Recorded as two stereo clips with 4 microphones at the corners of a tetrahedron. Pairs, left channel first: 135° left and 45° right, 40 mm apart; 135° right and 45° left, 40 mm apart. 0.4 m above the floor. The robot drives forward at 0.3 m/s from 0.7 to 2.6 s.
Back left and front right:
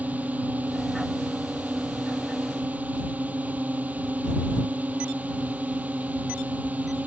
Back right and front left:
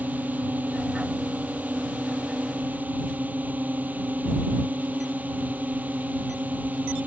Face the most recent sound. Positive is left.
turn(degrees=0)